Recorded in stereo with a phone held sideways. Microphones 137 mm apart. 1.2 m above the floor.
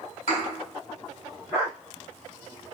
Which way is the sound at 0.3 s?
75° left (ahead or behind).